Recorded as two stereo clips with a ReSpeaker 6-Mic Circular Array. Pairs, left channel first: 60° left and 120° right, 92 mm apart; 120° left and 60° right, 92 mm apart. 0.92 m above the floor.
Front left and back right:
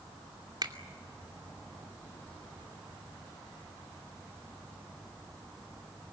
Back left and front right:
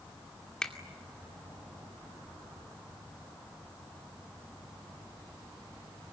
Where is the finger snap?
160° right, 2.5 m.